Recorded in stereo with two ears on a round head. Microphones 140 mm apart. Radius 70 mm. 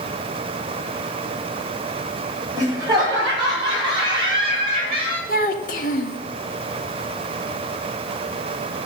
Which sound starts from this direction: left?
A child speaking, at 5.3 s.